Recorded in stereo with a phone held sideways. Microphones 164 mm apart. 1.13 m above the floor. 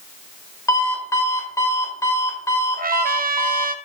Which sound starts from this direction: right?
A trumpet, at 2.8 s.